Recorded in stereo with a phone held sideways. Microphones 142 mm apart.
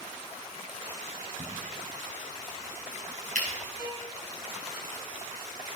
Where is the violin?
50° left (ahead or behind), 6 m.